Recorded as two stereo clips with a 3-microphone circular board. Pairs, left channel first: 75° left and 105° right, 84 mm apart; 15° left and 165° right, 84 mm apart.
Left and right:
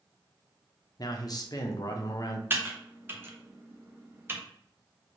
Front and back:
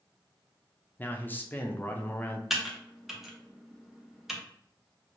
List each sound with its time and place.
1.0 s a man speaking: 75° left, 0.6 m
2.5 s typing on a keyboard: 85° right, 0.7 m